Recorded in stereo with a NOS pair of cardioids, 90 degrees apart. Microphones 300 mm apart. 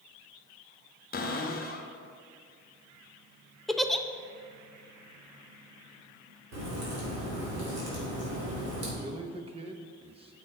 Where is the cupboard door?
30° left, 1.1 m.